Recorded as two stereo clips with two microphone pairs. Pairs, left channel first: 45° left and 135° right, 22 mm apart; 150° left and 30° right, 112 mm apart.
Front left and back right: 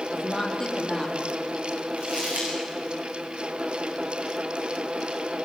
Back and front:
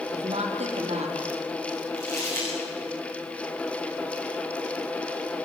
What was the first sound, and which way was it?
A woman speaking, 25° right.